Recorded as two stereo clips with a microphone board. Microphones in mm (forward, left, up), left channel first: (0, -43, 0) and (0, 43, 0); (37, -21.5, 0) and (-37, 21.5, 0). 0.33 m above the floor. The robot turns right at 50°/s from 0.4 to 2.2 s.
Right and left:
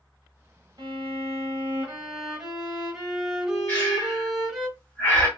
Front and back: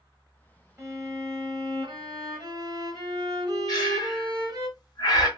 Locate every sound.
0.8 s a violin: 100° left, 1.1 m; by 4.7 s 170° left, 1.1 m
3.7 s breathing: 25° right, 1.2 m